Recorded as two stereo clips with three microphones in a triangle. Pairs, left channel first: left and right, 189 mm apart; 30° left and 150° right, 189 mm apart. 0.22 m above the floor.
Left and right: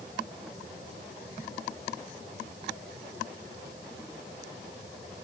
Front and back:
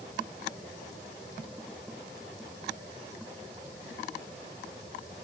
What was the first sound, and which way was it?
Only background noise.